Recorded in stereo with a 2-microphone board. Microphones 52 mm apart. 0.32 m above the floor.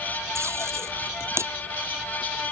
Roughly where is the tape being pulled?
Right.